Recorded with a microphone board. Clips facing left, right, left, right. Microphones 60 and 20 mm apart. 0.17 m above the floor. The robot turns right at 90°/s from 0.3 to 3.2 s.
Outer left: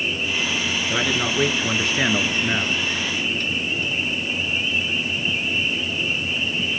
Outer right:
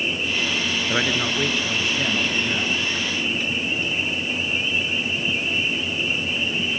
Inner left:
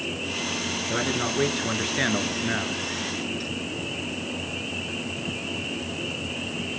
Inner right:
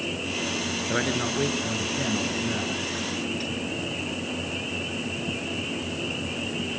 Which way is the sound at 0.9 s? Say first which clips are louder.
Even, even; 20° right.